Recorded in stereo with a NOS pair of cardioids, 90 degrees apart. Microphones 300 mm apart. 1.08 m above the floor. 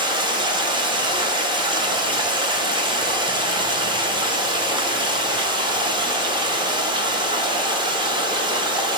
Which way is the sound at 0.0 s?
15° right.